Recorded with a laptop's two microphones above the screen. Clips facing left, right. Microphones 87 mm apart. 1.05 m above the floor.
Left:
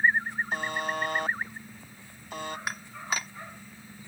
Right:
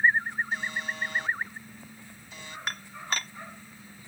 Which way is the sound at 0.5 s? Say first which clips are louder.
Left 3 dB; 55° left (ahead or behind).